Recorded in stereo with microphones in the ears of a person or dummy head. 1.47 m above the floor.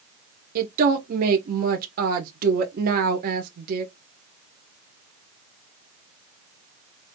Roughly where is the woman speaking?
Right.